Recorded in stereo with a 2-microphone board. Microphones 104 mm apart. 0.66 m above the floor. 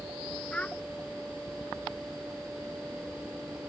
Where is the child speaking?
10° left (ahead or behind).